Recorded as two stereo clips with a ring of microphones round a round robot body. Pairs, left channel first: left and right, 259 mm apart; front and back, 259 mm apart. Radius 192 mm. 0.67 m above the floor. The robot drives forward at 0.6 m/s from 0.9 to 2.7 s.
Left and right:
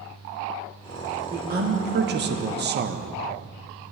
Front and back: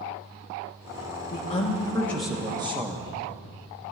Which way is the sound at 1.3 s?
45° right.